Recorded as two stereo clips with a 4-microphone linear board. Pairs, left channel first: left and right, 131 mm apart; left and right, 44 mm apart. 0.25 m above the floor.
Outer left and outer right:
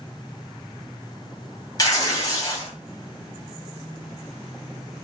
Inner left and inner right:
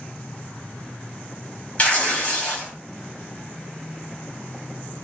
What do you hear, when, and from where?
1.8 s tearing paper: 30° left (ahead or behind), 0.9 m